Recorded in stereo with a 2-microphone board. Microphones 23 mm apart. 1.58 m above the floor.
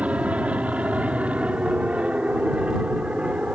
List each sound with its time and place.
0.0 s an aircraft: 65° right (ahead or behind); by 3.5 s 55° right (ahead or behind)